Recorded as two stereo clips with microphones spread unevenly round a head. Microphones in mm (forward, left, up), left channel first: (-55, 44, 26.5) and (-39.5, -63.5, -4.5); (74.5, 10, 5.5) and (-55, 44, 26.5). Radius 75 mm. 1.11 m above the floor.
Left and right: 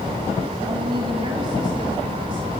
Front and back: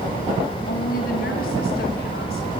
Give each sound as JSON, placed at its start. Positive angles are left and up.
{"t": 0.7, "sound": "a woman speaking", "azimuth_deg": -25, "distance_m": 2.5}